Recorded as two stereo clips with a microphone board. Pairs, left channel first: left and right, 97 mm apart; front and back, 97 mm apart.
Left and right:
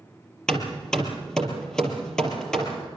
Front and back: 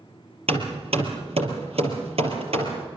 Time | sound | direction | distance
0.5 | hammering | 175° left | 4 m